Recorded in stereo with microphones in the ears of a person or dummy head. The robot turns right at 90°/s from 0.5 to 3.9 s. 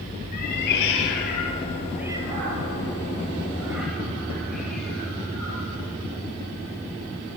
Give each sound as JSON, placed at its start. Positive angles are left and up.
{"t": 0.3, "sound": "a cat meowing", "side_deg": 50, "distance_m": 3.5}